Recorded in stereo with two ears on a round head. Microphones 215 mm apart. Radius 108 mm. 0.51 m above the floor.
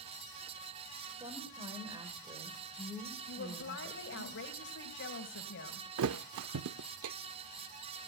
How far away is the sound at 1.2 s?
About 2.5 m.